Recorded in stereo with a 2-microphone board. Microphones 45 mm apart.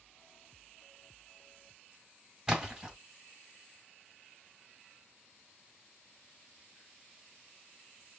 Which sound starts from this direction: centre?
A splash, at 2.5 s.